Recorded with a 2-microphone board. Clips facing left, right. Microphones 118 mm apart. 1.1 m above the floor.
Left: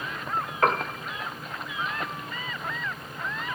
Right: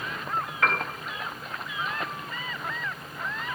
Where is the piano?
35° left (ahead or behind), 1.0 m.